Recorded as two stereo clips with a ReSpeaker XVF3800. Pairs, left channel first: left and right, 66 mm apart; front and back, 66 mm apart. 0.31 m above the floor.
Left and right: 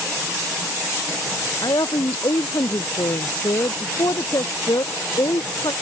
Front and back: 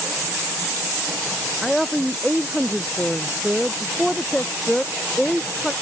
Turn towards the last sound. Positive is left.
turn(degrees=90)